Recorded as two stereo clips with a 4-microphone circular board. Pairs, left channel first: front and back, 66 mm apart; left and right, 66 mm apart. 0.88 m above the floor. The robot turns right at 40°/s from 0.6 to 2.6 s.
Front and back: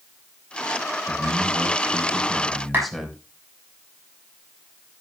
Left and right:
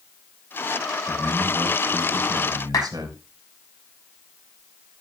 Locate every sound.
1.1 s a man speaking: 150° right, 3 m; by 3.2 s 90° right, 3 m
2.7 s a clap: 120° left, 6.5 m